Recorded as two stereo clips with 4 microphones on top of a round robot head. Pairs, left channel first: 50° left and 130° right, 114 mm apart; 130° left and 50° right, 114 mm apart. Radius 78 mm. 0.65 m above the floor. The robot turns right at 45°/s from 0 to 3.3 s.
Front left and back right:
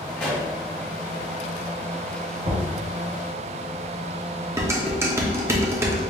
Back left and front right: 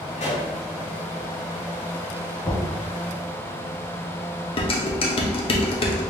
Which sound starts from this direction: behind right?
Knocking, at 2.4 s.